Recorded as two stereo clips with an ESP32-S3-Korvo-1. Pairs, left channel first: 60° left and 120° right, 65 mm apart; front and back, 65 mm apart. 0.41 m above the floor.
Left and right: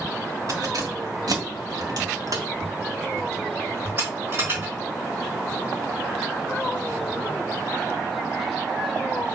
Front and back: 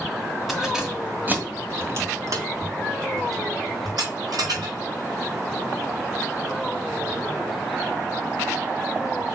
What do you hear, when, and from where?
0.5 s keys jangling: 90° right, 1.9 m; by 4.7 s straight behind, 3.5 m